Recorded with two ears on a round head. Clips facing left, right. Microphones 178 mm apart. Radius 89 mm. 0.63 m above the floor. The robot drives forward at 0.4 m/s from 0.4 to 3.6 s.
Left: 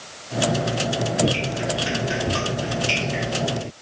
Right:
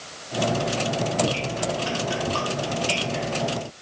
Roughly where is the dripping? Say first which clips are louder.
Left 2 dB; left.